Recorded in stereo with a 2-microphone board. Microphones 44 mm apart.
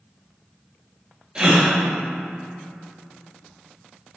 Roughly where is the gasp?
Right.